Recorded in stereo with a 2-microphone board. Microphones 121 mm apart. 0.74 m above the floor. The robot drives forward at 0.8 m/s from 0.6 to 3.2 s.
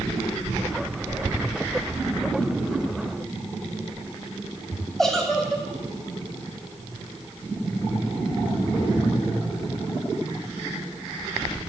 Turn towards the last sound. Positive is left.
turn(degrees=5)  # may be behind; listen again after turning